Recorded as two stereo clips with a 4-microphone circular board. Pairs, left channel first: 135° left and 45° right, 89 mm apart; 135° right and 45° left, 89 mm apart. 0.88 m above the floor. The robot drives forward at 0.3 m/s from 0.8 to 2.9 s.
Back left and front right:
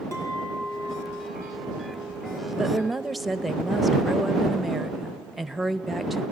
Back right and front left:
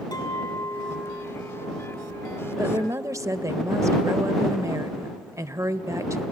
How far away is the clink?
About 5 m.